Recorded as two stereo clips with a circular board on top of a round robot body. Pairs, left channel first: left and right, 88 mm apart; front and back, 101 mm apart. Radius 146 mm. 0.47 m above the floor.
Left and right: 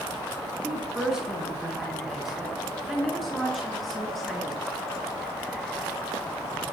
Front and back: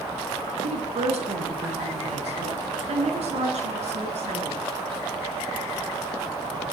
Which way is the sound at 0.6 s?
175° right.